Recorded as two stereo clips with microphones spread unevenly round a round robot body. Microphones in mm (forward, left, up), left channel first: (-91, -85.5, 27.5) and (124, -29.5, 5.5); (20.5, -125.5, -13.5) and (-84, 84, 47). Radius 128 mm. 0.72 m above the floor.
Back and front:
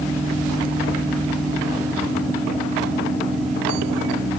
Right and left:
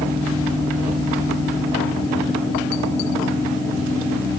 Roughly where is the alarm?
No alarm in this recording.